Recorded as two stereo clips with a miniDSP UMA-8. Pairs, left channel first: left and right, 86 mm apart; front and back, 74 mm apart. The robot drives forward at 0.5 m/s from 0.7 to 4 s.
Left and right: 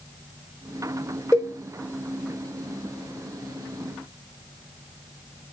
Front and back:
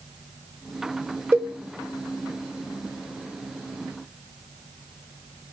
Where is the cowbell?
140° left, 0.8 m; by 1.6 s 145° left, 0.9 m.